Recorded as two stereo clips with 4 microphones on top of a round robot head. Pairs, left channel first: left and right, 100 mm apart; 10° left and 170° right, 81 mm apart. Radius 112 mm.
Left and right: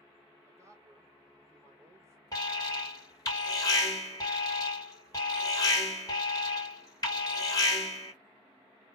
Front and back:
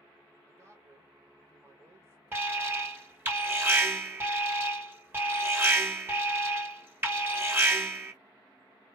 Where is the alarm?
130° left, 1.5 m.